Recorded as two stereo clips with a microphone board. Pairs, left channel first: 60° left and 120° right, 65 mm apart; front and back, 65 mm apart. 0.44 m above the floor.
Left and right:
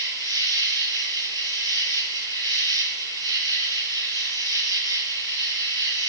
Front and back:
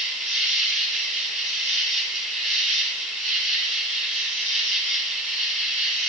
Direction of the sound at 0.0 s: 75° left.